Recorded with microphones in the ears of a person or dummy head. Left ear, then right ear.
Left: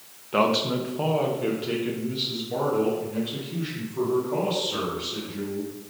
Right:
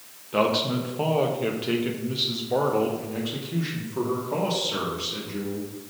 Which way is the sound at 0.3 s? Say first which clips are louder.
Left 1 dB; 25° left (ahead or behind).